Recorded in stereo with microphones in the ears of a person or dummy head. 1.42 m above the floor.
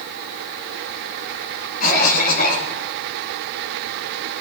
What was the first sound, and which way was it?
A cough, 50° left (ahead or behind).